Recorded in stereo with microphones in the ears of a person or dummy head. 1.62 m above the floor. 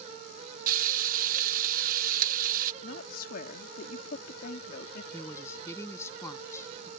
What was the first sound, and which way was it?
Frying, 50° right (ahead or behind).